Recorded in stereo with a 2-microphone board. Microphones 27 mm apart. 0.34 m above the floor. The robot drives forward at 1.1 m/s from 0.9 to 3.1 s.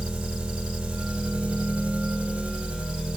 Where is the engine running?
35° right (ahead or behind), 1.8 m.